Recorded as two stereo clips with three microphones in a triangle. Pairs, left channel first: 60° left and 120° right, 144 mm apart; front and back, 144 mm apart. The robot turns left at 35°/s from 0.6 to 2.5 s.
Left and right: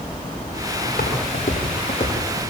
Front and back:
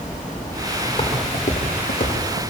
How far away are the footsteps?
About 7.5 m.